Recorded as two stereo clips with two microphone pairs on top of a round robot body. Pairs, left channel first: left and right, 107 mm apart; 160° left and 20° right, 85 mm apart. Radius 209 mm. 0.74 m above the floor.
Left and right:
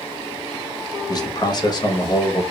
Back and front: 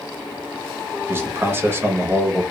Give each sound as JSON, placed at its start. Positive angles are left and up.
{"t": 1.1, "sound": "a man speaking", "azimuth_deg": 40, "distance_m": 0.9}